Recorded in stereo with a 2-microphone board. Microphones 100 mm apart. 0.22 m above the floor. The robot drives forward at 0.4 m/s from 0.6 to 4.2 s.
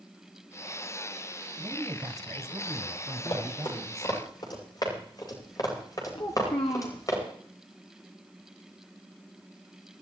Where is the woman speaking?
35° right (ahead or behind), 1.7 m; by 4.2 s 30° right (ahead or behind), 2.0 m.